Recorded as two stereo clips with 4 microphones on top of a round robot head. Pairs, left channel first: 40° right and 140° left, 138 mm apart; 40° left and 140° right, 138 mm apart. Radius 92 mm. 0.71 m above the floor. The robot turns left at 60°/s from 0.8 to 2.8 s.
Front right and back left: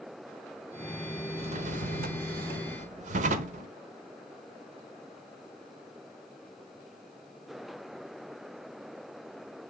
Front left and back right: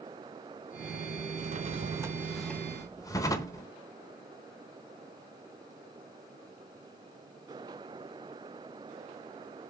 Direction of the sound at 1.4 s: 170° right.